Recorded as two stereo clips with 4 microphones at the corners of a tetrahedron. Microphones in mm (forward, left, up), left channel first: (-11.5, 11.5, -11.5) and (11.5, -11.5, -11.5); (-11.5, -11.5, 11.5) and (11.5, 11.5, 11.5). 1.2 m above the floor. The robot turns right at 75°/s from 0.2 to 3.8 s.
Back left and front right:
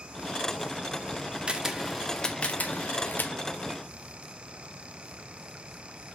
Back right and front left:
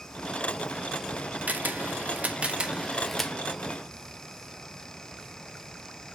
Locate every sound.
1.5 s a camera shutter: 15° left, 1.0 m; by 3.3 s 155° left, 1.0 m